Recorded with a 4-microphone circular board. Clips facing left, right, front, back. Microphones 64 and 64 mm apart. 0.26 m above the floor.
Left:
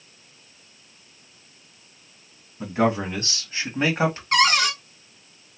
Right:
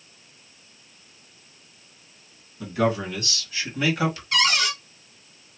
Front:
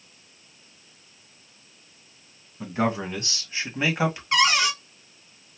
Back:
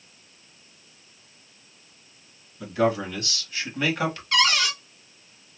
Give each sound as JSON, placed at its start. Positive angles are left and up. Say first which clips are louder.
{"t": 2.6, "sound": "a man speaking", "louder": "left 2 dB, back 2 dB", "azimuth_deg": 45, "distance_m": 2.5}
{"t": 4.3, "sound": "a cupboard door", "louder": "left 5 dB, front 1 dB", "azimuth_deg": 65, "distance_m": 1.1}